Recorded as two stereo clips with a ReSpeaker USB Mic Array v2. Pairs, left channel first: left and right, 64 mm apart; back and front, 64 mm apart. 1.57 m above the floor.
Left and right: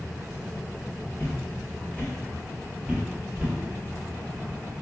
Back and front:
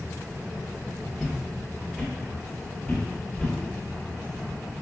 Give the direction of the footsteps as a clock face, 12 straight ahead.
9 o'clock.